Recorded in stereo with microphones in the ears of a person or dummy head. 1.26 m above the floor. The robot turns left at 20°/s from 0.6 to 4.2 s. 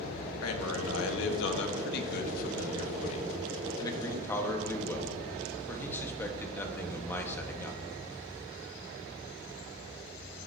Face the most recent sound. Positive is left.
turn(degrees=15)